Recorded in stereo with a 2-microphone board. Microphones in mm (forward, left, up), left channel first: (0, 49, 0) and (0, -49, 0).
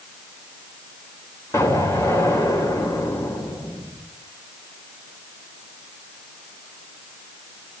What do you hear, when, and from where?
1.5 s an explosion: 30° left (ahead or behind), 3.5 m